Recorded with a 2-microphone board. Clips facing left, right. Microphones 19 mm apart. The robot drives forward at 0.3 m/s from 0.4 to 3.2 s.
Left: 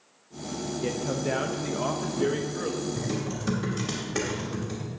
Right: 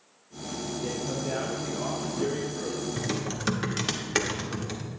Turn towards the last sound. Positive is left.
turn(degrees=-60)  # may be behind; listen again after turning